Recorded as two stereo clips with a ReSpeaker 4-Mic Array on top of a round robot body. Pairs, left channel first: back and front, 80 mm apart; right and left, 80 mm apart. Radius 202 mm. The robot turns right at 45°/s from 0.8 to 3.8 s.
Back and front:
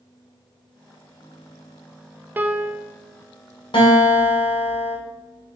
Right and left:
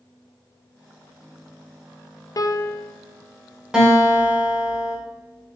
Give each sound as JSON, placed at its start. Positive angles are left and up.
{"t": 2.4, "sound": "a piano", "azimuth_deg": -65, "distance_m": 0.7}
{"t": 3.7, "sound": "a guitar", "azimuth_deg": 170, "distance_m": 2.5}